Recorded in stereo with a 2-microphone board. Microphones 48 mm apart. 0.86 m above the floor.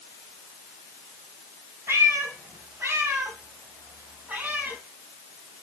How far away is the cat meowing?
About 2.5 m.